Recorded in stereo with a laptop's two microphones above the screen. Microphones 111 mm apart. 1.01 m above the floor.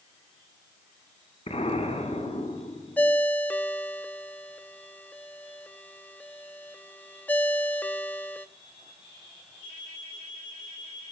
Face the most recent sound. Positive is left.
turn(degrees=15)  # may be behind; listen again after turning